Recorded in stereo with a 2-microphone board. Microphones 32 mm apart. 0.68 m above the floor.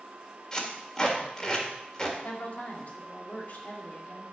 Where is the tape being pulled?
25° left (ahead or behind), 1.8 m.